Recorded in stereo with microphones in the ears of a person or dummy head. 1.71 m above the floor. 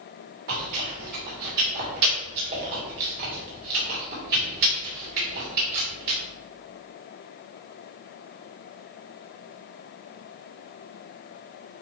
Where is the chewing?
50° right (ahead or behind), 2.5 m.